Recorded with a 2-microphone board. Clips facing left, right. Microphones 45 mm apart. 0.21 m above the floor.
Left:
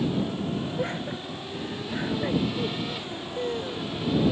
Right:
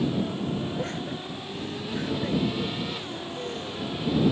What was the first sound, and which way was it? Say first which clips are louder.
Laughter: left 1 dB; 20° left (ahead or behind).